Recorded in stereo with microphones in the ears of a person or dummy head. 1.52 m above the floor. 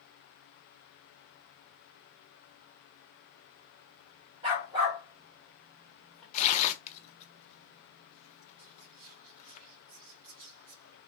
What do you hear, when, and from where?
4.4 s a dog barking: 25° right (ahead or behind), 1.8 m; by 6.2 s 10° left (ahead or behind), 1.5 m
6.3 s tearing paper: 40° left (ahead or behind), 0.6 m
8.6 s whispering: 80° right, 2 m